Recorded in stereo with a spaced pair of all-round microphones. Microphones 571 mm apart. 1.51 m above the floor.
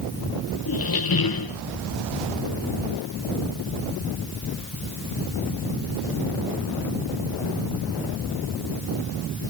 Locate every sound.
0.7 s a squeak: 40° left (ahead or behind), 0.6 m